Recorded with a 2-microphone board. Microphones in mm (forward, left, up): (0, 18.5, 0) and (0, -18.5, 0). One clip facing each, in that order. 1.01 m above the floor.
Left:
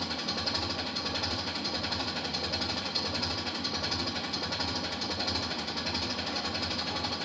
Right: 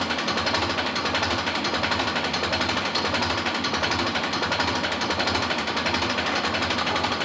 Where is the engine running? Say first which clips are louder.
Right 10 dB; 65° right (ahead or behind), 1.0 m.